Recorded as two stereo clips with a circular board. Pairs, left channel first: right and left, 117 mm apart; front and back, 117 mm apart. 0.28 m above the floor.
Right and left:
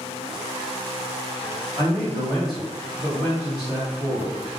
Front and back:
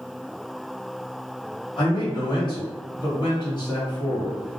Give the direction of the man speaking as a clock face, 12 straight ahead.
12 o'clock.